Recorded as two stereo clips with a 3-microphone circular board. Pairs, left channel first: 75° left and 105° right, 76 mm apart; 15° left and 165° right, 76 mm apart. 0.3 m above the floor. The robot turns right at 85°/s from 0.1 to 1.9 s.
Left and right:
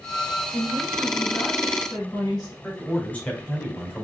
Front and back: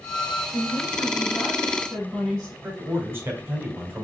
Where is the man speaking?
140° left, 1.5 m.